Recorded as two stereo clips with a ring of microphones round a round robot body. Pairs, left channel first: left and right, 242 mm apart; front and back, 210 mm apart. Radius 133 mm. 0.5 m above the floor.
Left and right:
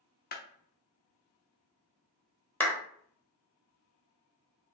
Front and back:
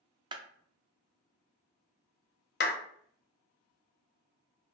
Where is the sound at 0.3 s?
120° left, 0.6 m.